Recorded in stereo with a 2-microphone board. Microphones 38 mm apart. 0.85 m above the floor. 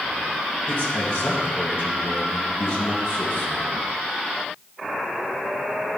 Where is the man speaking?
75° left (ahead or behind), 5.5 m.